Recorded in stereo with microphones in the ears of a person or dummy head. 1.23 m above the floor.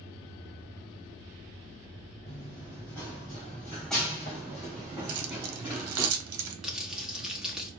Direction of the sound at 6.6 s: 5° right (ahead or behind).